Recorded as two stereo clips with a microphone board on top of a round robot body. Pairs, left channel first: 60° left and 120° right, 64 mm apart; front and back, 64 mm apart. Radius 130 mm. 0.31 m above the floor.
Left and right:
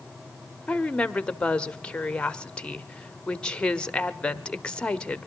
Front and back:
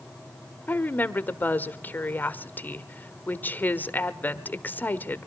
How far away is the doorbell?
No doorbell in this recording.